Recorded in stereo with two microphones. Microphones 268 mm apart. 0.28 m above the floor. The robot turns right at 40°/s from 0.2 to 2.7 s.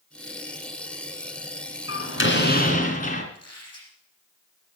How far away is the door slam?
About 2.5 m.